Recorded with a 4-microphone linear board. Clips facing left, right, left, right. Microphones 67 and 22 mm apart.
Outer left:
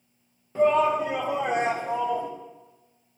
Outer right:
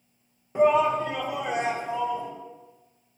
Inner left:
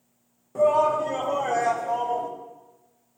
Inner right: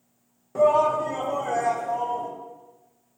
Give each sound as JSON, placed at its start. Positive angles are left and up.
{"t": 0.6, "sound": "a shout", "side_deg": -20, "distance_m": 0.9}